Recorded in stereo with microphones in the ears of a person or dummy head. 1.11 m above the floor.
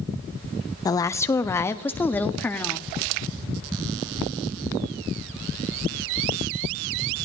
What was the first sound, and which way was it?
A woman speaking, 20° left (ahead or behind).